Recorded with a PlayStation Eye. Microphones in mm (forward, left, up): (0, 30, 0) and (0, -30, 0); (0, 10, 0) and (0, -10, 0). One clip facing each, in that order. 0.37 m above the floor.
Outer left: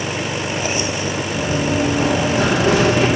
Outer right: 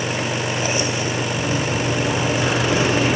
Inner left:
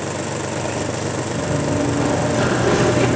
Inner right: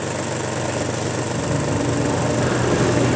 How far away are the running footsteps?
About 8.5 m.